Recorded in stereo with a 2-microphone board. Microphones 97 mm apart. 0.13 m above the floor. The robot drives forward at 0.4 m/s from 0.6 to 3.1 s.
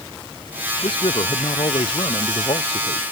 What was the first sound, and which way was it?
A man speaking, 65° left (ahead or behind).